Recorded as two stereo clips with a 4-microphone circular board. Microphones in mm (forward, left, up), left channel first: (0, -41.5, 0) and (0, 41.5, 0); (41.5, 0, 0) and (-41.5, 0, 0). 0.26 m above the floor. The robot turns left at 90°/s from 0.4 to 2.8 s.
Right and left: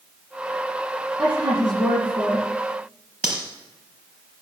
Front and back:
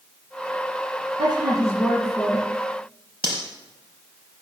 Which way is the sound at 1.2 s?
165° left.